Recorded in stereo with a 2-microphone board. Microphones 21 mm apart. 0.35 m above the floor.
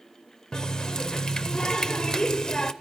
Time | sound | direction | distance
0.5 | a running tap | 35° left (ahead or behind) | 0.6 m